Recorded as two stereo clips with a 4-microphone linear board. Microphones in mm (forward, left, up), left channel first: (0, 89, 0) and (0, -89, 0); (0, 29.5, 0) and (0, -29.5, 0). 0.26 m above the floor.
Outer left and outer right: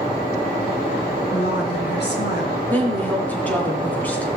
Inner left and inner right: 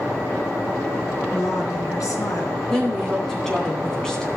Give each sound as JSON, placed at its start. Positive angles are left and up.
{"t": 1.3, "sound": "a woman speaking", "side_deg": 65, "distance_m": 2.5}
{"t": 2.7, "sound": "a woman speaking", "side_deg": 10, "distance_m": 2.5}